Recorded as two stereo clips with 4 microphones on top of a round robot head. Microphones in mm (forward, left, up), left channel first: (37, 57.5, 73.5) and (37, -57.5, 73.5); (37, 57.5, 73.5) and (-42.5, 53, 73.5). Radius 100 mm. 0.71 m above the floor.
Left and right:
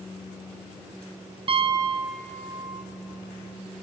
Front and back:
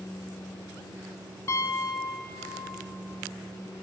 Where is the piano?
50° right, 0.6 m.